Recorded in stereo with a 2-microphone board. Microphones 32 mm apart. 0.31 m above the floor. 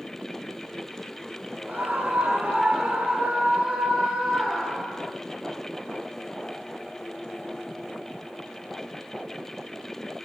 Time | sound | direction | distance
1.7 | a scream | 55° right (ahead or behind) | 3 m